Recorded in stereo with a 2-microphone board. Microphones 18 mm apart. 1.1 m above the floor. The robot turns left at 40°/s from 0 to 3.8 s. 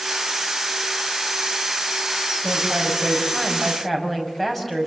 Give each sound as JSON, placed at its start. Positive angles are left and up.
{"t": 2.4, "sound": "a woman speaking", "azimuth_deg": -135, "distance_m": 6.0}